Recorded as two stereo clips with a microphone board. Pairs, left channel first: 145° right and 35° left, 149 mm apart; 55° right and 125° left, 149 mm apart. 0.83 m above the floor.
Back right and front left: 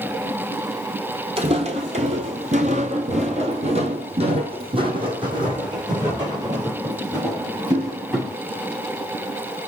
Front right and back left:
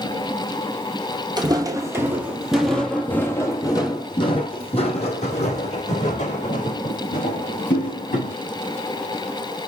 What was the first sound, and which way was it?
Footsteps, 70° left.